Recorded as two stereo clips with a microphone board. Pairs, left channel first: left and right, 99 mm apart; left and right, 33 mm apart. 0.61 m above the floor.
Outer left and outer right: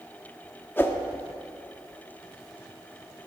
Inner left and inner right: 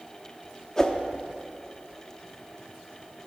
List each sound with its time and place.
0.8 s a whoosh: 20° left (ahead or behind), 1.1 m